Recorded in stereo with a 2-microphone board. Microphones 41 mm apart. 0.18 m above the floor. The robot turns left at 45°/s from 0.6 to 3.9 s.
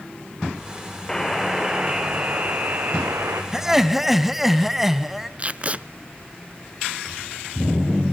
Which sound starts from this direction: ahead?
A buzzer, at 1.1 s.